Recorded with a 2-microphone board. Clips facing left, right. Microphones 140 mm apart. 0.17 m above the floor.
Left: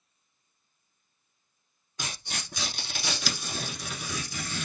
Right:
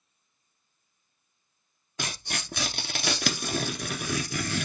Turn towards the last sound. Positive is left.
turn(degrees=-65)  # may be behind; listen again after turning